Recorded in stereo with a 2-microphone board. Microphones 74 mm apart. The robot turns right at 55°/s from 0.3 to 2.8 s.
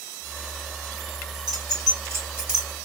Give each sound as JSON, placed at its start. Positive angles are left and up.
{"t": 1.5, "sound": "keys jangling", "side_deg": -70, "distance_m": 3.0}